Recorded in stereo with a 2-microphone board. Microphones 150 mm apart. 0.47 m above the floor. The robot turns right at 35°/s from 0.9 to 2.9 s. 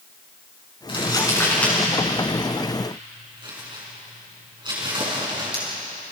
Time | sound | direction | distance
0.9 | crumpling | 35° left (ahead or behind) | 6 m